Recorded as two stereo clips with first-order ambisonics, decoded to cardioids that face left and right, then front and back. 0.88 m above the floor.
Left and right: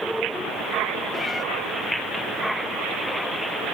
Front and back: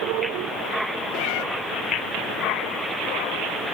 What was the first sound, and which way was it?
A cat meowing, 5° left.